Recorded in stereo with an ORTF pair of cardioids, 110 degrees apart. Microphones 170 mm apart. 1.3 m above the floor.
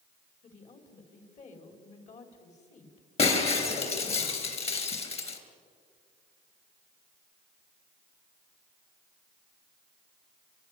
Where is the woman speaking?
45° left, 4.5 m.